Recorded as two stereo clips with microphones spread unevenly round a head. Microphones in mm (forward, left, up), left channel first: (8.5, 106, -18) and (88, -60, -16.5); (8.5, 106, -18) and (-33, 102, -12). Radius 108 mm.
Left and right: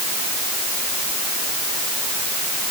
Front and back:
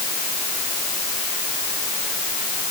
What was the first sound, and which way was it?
Only background noise.